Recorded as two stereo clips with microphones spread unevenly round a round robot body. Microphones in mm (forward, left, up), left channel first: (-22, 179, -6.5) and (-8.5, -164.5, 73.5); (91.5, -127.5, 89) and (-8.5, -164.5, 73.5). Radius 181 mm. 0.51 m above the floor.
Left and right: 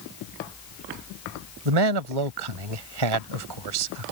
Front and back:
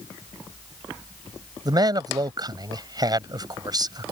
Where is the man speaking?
110° right.